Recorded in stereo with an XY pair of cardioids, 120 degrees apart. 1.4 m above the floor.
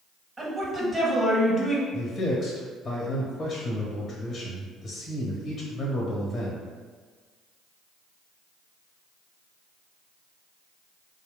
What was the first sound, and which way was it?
A woman speaking, 20° right.